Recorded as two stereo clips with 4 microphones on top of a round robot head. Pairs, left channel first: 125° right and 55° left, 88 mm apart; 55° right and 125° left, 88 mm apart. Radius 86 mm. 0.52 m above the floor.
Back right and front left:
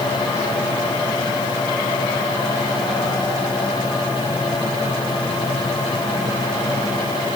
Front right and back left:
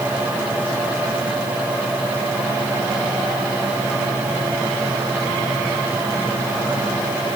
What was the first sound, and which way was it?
Only background noise.